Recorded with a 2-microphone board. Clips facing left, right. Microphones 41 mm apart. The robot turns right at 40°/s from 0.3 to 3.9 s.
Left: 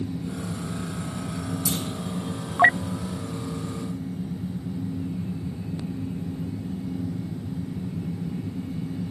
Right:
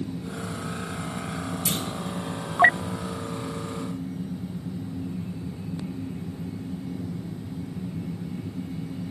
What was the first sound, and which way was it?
A clunk, 55° right (ahead or behind).